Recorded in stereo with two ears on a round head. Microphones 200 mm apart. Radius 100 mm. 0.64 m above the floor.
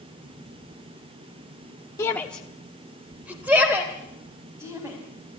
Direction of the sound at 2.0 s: 15° left (ahead or behind).